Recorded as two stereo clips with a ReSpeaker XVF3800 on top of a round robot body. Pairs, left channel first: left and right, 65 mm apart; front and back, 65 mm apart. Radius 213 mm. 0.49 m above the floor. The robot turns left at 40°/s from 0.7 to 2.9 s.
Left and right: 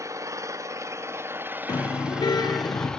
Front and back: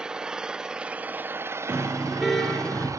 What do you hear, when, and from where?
0.0 s an engine running: 105° right, 1.5 m; by 3.0 s 170° left, 1.5 m
1.7 s a car horn: 115° left, 4.5 m; by 2.9 s 70° left, 4.5 m